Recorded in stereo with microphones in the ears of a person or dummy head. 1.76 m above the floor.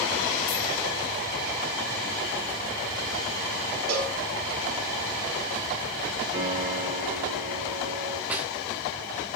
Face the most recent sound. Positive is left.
turn(degrees=-10)  # may be behind; listen again after turning